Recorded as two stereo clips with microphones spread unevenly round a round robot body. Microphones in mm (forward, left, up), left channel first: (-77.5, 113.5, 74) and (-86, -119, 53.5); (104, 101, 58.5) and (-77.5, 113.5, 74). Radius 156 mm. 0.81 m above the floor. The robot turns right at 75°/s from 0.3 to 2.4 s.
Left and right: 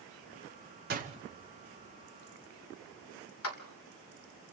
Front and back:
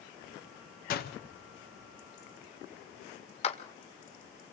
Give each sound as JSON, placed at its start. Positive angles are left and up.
{"t": 0.9, "sound": "a door slam", "azimuth_deg": -45, "distance_m": 1.4}
{"t": 3.4, "sound": "a clap", "azimuth_deg": 50, "distance_m": 2.5}